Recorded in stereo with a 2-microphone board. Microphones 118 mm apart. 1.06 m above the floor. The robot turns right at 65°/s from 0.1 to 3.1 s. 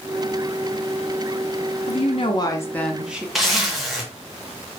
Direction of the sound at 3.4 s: Centre (ahead or behind).